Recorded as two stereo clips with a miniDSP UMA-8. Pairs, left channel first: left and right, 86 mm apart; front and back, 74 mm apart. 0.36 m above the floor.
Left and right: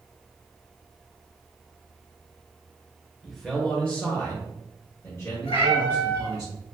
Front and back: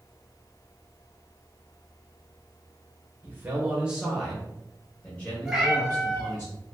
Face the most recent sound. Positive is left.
turn(degrees=95)